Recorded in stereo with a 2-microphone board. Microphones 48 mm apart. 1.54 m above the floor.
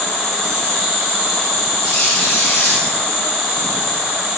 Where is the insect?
5° left (ahead or behind), 2.5 m.